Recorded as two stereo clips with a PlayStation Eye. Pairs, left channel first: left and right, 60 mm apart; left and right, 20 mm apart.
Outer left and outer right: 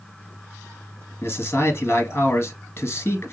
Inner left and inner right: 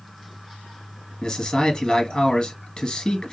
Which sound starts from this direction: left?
A man speaking, at 1.2 s.